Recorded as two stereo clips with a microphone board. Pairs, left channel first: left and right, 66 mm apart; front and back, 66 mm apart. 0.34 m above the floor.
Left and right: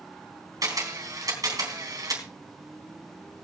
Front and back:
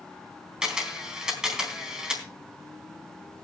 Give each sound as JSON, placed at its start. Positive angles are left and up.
{"t": 0.6, "sound": "a camera shutter", "azimuth_deg": -100, "distance_m": 3.5}